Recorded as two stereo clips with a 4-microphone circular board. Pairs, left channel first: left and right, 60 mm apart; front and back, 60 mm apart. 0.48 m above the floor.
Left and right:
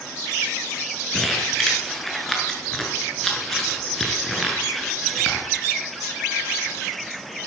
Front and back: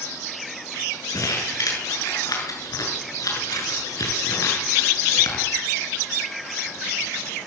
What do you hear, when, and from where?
1.1 s crumpling: 5° left, 7 m